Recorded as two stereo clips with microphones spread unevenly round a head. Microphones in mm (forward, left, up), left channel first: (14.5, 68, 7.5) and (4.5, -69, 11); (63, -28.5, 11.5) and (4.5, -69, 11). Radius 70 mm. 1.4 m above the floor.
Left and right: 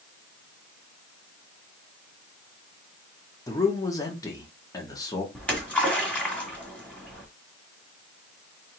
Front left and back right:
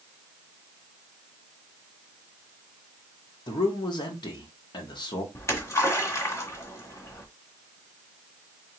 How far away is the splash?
About 1.7 m.